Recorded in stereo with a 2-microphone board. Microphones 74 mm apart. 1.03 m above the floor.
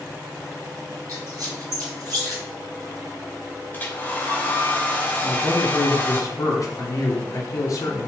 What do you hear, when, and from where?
1.1 s a squeak: 50° right (ahead or behind), 1.8 m
3.7 s a hair dryer: 25° left (ahead or behind), 0.5 m
5.2 s a man speaking: 45° left (ahead or behind), 0.6 m